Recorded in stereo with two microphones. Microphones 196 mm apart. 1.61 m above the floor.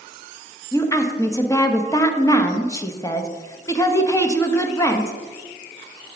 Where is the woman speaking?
15° left (ahead or behind), 0.8 m.